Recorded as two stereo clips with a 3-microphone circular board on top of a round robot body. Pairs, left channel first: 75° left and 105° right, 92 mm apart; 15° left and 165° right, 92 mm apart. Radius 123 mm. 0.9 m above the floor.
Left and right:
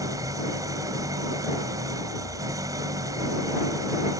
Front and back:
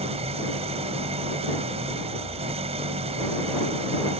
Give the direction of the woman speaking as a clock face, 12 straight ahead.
No woman speaking in this recording.